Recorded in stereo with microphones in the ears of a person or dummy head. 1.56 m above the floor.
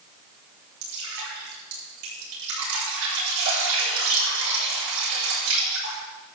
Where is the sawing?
No sawing in this recording.